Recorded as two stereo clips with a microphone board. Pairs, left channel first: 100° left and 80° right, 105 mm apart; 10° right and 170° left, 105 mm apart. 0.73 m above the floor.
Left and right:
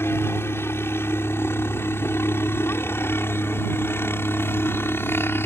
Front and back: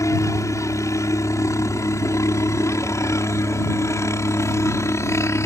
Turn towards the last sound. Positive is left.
turn(degrees=40)